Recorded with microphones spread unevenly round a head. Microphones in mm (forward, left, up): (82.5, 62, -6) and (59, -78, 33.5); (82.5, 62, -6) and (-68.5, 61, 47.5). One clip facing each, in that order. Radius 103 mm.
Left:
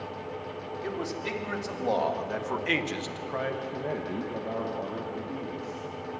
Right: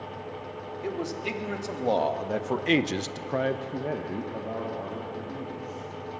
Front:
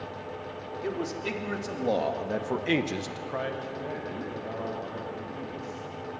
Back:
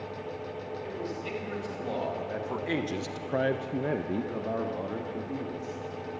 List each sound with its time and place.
0.8 s a man speaking: 30° right, 3.5 m; by 5.9 s 160° left, 4 m